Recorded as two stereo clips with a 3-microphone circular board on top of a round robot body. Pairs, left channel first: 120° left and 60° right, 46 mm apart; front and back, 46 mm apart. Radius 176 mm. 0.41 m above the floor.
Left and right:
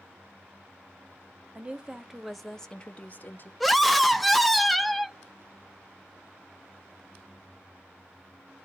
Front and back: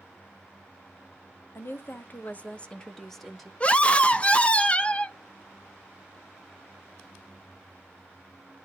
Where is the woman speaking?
Straight ahead, 1.2 m; by 3.5 s 95° left, 1.2 m.